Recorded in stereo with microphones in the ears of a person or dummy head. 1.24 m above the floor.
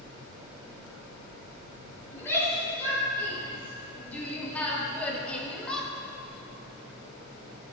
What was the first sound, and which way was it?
A shout, 10° left (ahead or behind).